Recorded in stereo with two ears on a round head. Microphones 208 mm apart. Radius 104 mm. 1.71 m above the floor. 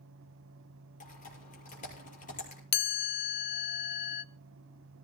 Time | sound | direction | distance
1.0 | typing on a keyboard | 35° left (ahead or behind) | 6.5 m
2.7 | a chime | 45° left (ahead or behind) | 0.7 m